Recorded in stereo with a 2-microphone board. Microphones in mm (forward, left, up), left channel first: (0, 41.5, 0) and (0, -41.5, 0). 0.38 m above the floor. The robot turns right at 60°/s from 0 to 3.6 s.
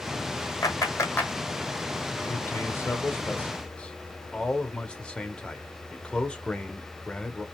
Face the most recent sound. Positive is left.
turn(degrees=155)